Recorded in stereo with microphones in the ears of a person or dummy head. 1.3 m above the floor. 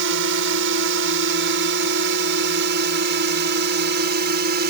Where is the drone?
65° right (ahead or behind); by 4.7 s 50° right (ahead or behind).